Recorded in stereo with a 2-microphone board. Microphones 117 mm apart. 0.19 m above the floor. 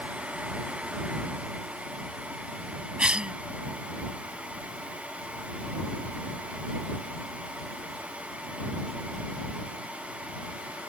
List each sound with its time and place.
3.0 s a cough: 10° right (ahead or behind)